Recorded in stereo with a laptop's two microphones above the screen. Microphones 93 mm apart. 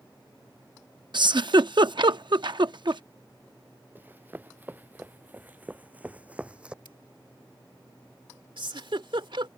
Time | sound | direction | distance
1.1 | a giggle | 60° right (ahead or behind) | ?
4.0 | running footsteps | 20° right (ahead or behind) | ?
6.8 | scissors | 70° left (ahead or behind) | ?
8.6 | a giggle | 75° right (ahead or behind) | ?